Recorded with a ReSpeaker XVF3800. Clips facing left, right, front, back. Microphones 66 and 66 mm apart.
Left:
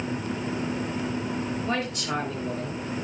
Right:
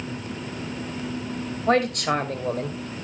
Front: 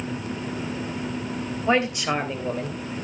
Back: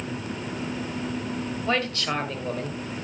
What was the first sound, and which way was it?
A man speaking, 70° right.